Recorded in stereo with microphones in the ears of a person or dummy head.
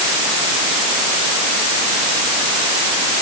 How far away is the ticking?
I don't hear ticking.